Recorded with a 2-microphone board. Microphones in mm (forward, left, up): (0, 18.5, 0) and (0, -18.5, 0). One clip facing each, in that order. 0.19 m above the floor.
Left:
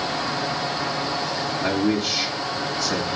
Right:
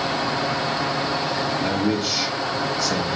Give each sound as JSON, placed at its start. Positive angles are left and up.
{"t": 1.6, "sound": "a man speaking", "side_deg": 10, "distance_m": 1.4}